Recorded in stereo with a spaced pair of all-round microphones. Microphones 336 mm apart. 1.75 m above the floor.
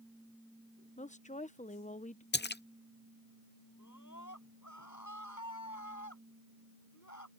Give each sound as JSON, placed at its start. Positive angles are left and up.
{"t": 1.0, "sound": "a woman speaking", "side_deg": 20}
{"t": 2.3, "sound": "a splash", "side_deg": 30}
{"t": 3.8, "sound": "a scream", "side_deg": 60}